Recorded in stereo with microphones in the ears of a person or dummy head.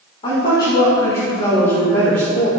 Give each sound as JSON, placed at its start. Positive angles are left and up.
{"t": 0.2, "sound": "a woman speaking", "side_deg": 35, "distance_m": 3.0}